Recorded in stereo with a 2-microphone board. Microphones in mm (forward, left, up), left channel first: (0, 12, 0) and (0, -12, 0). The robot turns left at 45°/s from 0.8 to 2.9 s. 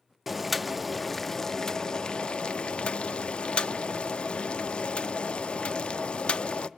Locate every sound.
0.3 s boiling: 175° right, 0.6 m; by 6.7 s 90° left, 0.6 m